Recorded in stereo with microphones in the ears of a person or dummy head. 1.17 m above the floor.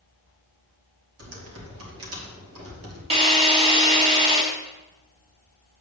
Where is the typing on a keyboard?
80° right, 3 m.